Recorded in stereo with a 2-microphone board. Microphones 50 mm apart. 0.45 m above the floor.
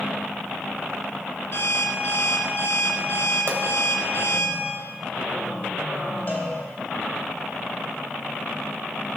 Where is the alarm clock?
50° left (ahead or behind), 2.5 m.